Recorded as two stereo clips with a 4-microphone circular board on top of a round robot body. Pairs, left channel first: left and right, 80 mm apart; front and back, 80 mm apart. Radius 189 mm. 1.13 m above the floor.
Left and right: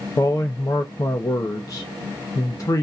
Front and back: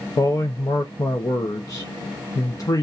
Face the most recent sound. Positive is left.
turn(degrees=45)